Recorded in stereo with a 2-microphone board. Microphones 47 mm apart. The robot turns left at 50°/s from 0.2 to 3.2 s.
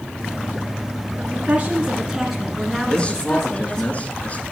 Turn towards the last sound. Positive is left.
turn(degrees=30)  # may be behind; listen again after turning